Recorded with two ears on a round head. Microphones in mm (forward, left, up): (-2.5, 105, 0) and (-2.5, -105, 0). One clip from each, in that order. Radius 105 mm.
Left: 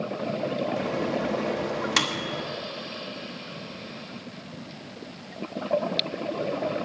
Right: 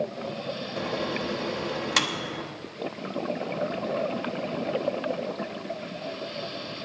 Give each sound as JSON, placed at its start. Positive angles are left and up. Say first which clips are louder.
{"t": 0.8, "sound": "a microwave", "louder": "left 2 dB", "side_deg": 0, "distance_m": 1.2}